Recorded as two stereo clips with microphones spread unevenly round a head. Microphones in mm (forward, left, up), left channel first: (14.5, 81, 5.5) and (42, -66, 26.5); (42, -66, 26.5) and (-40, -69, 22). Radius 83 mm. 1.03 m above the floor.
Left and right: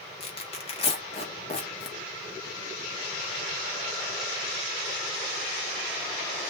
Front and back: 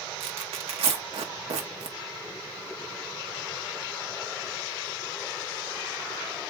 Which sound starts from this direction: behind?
Tearing paper, at 0.2 s.